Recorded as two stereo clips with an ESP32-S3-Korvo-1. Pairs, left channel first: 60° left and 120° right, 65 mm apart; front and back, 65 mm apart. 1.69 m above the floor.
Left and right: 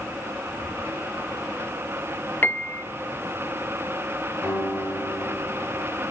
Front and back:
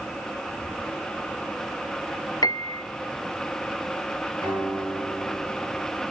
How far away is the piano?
About 0.6 m.